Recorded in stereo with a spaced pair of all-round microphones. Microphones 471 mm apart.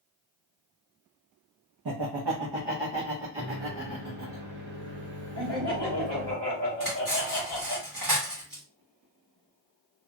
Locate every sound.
1.9 s laughter: 50° right (ahead or behind), 0.5 m; by 4.4 s 70° right (ahead or behind), 1.8 m
3.4 s a microwave: 60° right (ahead or behind), 1.6 m
5.3 s laughter: 60° right (ahead or behind), 2 m
6.8 s cutlery clinking: 40° right (ahead or behind), 1.9 m